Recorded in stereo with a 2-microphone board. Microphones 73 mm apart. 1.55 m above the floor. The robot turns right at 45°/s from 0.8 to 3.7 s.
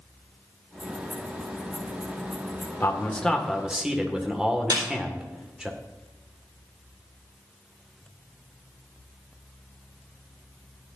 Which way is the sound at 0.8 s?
5° right (ahead or behind).